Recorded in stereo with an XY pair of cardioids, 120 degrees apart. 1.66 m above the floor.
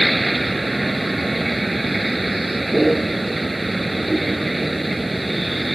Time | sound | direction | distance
0.0 | a vehicle | 15° right | ?